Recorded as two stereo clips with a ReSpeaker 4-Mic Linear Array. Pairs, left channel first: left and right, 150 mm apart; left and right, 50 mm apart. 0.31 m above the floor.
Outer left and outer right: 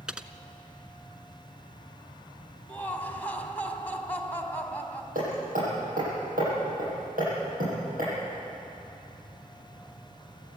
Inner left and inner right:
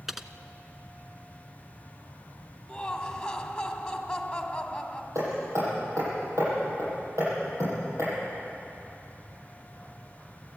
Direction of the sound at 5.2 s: 80° right.